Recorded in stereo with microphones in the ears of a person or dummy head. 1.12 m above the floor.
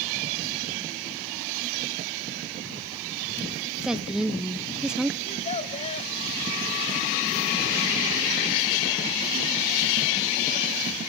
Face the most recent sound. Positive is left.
turn(degrees=35)  # may be behind; listen again after turning